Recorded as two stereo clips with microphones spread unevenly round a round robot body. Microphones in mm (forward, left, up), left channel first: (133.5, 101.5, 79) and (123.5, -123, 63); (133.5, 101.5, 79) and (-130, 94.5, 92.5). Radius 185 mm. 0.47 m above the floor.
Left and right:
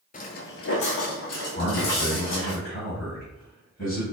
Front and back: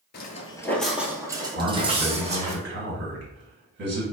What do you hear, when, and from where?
0.1 s footsteps: 45° left, 0.6 m; by 2.5 s 120° left, 1.9 m
1.6 s a man speaking: 145° left, 1.7 m